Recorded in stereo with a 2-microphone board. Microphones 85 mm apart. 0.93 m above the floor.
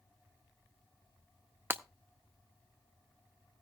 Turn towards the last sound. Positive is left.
turn(degrees=-30)  # may be behind; listen again after turning